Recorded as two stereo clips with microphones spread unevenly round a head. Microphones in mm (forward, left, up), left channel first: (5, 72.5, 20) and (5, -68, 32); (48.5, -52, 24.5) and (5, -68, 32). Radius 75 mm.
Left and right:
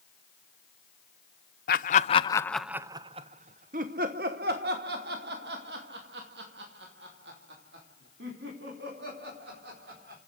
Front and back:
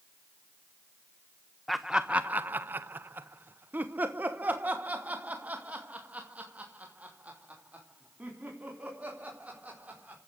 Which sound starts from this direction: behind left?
Laughter, at 1.7 s.